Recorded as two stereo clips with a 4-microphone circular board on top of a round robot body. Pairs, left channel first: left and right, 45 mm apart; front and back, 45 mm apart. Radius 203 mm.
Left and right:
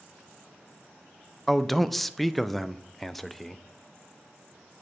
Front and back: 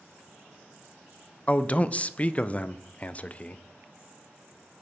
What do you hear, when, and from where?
1.5 s a man speaking: 5° left, 0.6 m